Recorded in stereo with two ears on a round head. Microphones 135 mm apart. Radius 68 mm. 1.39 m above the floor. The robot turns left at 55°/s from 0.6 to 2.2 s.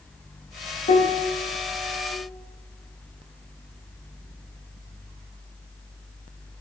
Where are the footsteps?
No footsteps in this recording.